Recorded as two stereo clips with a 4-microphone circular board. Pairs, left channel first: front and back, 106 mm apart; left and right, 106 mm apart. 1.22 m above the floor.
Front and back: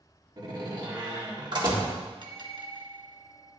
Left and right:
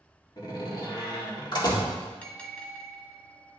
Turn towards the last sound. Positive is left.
turn(degrees=165)